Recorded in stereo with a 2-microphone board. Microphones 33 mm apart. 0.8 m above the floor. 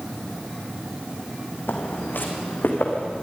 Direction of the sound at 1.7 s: 75° left (ahead or behind).